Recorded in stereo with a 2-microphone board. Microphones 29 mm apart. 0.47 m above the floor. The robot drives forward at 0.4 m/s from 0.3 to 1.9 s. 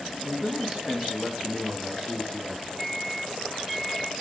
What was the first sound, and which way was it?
A man speaking, 50° right (ahead or behind).